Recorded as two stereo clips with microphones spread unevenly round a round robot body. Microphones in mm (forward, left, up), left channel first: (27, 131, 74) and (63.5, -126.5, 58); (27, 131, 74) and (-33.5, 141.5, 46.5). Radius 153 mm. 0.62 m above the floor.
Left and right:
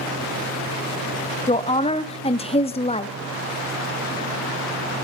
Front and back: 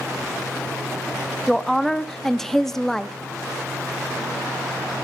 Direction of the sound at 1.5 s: 135° left.